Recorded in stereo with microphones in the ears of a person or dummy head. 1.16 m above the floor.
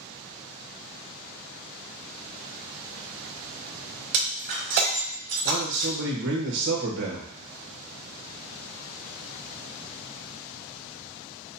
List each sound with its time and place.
4.1 s breaking glass: 30° right (ahead or behind), 1.2 m
5.5 s a man speaking: 65° right (ahead or behind), 1.4 m